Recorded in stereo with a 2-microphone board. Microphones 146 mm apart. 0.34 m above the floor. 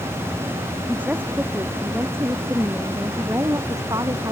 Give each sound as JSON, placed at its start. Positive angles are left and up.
{"t": 0.9, "sound": "a woman speaking", "side_deg": -10}